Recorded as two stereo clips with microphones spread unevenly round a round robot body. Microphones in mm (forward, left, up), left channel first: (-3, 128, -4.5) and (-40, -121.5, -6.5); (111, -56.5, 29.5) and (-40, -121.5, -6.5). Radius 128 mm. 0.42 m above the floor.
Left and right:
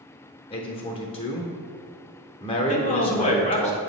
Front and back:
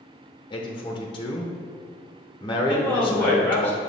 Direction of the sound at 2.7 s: 115° left.